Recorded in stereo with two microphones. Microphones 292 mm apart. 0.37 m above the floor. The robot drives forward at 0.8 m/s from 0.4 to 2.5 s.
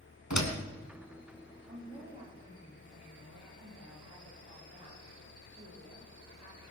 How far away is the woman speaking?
About 10 m.